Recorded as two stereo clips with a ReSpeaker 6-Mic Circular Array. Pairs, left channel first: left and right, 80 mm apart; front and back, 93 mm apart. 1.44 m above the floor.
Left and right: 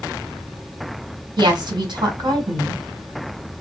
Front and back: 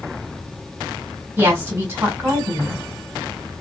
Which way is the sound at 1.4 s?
115° right.